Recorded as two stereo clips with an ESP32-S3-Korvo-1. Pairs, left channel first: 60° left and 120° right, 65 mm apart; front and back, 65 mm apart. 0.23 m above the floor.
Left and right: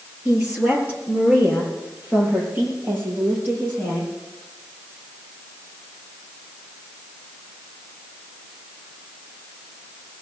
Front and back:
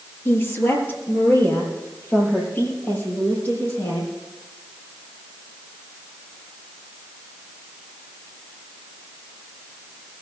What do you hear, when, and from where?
0.2 s a woman speaking: 50° right, 5 m; by 4.1 s 65° right, 9.5 m